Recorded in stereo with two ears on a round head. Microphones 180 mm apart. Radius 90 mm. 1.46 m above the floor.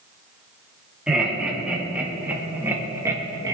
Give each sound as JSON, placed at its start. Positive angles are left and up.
{"t": 1.1, "sound": "laughter", "side_deg": -5, "distance_m": 3.5}